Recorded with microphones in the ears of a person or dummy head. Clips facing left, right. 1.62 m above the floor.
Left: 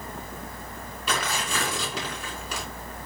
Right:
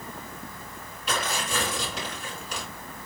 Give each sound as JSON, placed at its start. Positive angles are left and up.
{"t": 1.1, "sound": "tearing paper", "side_deg": 60, "distance_m": 4.5}